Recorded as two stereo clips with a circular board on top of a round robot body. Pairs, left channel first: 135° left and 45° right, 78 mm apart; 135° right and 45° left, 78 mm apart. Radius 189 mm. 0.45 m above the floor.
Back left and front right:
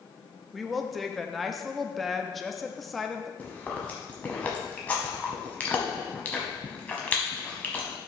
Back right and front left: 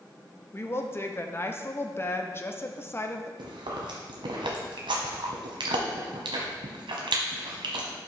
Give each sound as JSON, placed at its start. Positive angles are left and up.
{"t": 0.5, "sound": "a woman speaking", "azimuth_deg": -135, "distance_m": 1.0}
{"t": 3.4, "sound": "chewing", "azimuth_deg": 60, "distance_m": 1.0}